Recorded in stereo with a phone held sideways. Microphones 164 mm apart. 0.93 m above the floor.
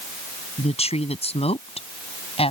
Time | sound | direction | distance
0.6 | a woman speaking | 35° left (ahead or behind) | ?